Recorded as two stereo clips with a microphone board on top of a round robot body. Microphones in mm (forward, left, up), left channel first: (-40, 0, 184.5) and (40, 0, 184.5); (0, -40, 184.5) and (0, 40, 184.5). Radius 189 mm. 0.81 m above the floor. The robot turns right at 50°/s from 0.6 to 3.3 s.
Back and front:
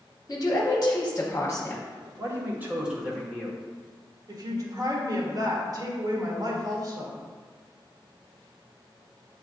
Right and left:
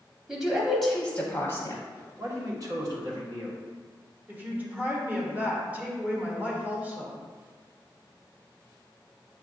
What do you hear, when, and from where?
0.3 s a woman speaking: straight behind, 0.9 m; by 1.8 s 115° right, 0.9 m
2.2 s a man speaking: 40° left, 1.2 m; by 3.6 s 95° left, 1.2 m
4.3 s a woman speaking: 25° left, 1.3 m